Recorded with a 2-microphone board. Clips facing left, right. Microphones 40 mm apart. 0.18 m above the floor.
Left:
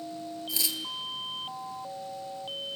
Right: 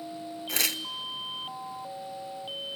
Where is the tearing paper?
65° right (ahead or behind), 0.5 m.